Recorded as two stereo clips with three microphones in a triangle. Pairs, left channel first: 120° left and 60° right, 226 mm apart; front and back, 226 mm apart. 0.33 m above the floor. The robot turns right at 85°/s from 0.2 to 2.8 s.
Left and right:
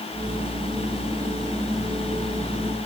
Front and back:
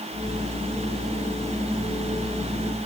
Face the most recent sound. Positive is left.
No sound to turn to.